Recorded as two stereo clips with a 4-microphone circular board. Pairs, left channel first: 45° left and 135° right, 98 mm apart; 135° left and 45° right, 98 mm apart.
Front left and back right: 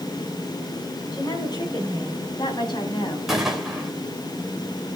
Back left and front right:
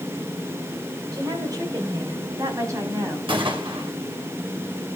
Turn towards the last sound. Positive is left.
turn(degrees=-50)